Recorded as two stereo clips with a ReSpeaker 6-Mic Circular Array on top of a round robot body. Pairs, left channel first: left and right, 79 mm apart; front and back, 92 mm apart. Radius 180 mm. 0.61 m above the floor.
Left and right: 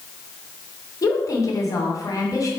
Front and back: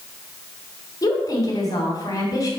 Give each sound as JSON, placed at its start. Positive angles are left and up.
{"t": 1.0, "sound": "a woman speaking", "azimuth_deg": 50, "distance_m": 2.5}